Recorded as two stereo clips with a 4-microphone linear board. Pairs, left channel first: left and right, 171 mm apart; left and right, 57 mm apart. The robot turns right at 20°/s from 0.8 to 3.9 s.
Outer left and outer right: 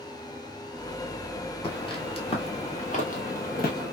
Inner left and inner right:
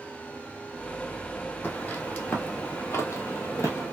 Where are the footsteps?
30° left (ahead or behind), 1.2 m; by 3.9 s 60° left (ahead or behind), 1.2 m.